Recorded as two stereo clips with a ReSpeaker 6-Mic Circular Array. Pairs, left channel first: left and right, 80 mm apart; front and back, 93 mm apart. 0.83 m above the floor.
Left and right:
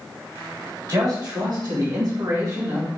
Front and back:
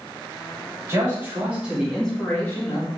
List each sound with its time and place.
0.9 s a man speaking: 125° right, 2 m; by 2.9 s 35° right, 1.6 m